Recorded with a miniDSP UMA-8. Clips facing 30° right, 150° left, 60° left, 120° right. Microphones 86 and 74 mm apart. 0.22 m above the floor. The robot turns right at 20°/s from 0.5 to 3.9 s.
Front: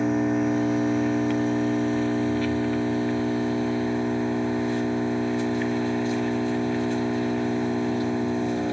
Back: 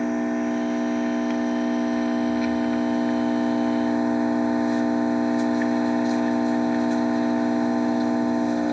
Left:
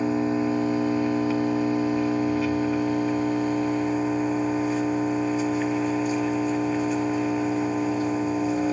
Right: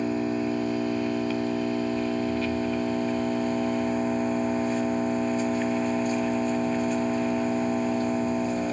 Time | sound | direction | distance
0.0 | an engine running | 60° left | 0.8 m